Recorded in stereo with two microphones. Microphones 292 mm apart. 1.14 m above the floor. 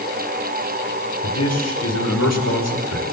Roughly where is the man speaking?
Left.